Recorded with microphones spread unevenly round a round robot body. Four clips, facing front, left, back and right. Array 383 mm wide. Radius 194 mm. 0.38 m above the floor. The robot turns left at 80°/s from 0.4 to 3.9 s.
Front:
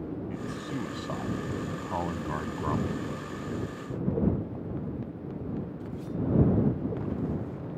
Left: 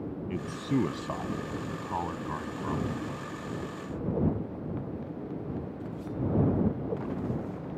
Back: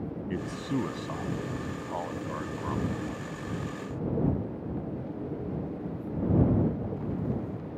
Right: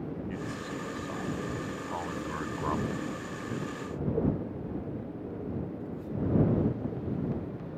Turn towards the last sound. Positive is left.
turn(degrees=-135)